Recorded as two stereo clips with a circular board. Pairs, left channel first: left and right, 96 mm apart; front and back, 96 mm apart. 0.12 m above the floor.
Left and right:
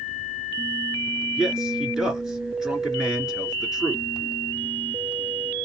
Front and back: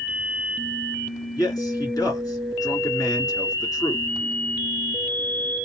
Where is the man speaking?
5° right, 2 m.